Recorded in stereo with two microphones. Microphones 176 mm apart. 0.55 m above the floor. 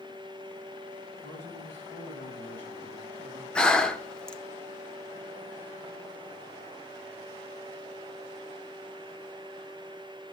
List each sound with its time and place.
1.2 s a man speaking: 65° right (ahead or behind), 7 m; by 3.5 s 75° right (ahead or behind), 6 m
3.5 s breathing: 5° left (ahead or behind), 0.9 m